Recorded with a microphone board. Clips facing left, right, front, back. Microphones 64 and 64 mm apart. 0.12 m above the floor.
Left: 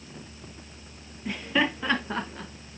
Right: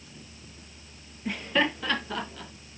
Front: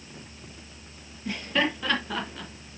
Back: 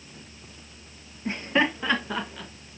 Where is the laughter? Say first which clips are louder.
Even, back 3 dB; 175° right, 1.9 m; by 2.5 s 85° left, 2 m.